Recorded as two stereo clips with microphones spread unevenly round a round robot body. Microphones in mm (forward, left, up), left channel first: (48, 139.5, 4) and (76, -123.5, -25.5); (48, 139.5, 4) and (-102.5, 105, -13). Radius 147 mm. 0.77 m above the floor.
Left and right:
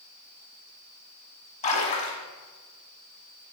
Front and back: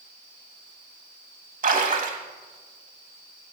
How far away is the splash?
About 1.3 m.